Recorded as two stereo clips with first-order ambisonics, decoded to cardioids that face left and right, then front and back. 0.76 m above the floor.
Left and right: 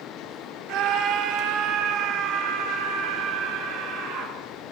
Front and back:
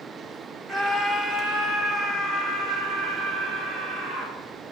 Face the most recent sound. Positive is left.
turn(degrees=-120)